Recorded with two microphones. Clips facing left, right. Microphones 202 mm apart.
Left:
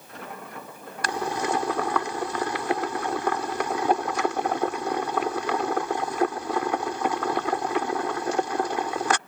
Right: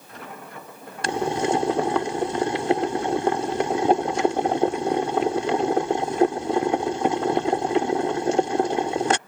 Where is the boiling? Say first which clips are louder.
Right 5 dB; 25° right (ahead or behind).